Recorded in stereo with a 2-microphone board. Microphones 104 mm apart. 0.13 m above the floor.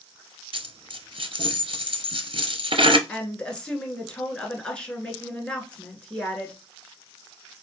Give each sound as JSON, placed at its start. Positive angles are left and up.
{"t": 0.5, "sound": "a dropped coin", "side_deg": -60, "distance_m": 0.6}
{"t": 3.1, "sound": "a woman speaking", "side_deg": 10, "distance_m": 1.6}